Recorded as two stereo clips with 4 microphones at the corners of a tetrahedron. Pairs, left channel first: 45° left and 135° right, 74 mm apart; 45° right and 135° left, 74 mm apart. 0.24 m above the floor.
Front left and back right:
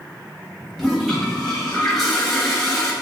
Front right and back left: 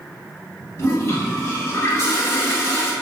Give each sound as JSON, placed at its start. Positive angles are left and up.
{"t": 0.8, "sound": "a toilet flushing", "azimuth_deg": -40, "distance_m": 0.6}